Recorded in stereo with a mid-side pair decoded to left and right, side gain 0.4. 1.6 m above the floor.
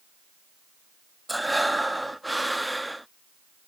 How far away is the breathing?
About 0.6 m.